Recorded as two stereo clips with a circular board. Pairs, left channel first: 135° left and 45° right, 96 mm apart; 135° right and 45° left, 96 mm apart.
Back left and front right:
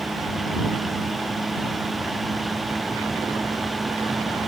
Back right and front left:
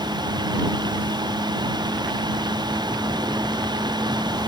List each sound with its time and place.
Only background noise.